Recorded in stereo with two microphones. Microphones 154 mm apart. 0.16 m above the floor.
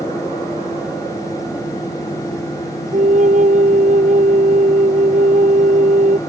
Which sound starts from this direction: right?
A flute, at 2.9 s.